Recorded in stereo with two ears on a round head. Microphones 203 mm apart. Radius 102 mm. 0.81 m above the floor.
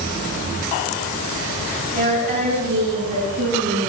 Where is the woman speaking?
45° right (ahead or behind), 8.5 m; by 3.9 s 55° right (ahead or behind), 8 m.